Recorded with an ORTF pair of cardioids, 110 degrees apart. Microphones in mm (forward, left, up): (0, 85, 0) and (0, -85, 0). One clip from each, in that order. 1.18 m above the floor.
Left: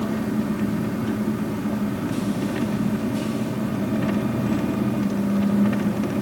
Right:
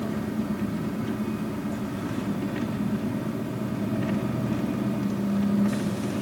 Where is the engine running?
30° left, 1.8 m.